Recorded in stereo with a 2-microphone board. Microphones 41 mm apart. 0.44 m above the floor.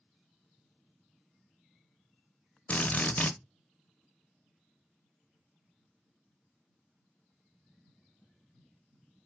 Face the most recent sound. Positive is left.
turn(degrees=35)  # may be behind; listen again after turning